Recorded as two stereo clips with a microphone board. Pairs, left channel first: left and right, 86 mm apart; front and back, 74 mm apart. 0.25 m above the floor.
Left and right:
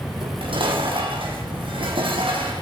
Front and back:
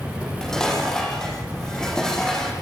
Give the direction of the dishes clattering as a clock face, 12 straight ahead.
3 o'clock.